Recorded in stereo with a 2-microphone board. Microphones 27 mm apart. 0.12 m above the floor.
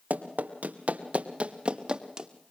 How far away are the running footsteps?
About 2.5 m.